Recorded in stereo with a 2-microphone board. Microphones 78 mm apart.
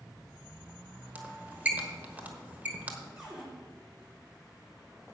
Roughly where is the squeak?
Right.